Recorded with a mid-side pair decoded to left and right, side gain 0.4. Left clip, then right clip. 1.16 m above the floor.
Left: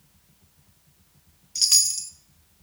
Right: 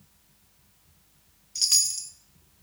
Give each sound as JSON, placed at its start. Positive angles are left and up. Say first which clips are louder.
{"t": 1.6, "sound": "a chime", "louder": "left 3 dB", "azimuth_deg": 25, "distance_m": 0.9}